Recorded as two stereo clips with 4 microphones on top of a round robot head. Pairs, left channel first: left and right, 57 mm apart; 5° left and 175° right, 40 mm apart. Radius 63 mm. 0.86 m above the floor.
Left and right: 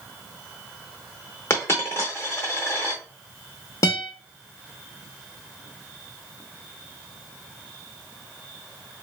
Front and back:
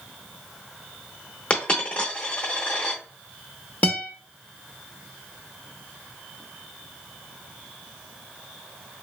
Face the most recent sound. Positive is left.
turn(degrees=55)